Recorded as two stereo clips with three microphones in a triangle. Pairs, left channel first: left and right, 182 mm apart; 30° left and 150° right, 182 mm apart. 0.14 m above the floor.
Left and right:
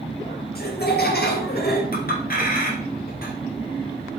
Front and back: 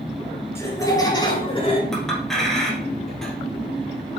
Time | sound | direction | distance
0.6 | laughter | 105° left | 3.5 m
1.9 | a clink | 120° left | 2.5 m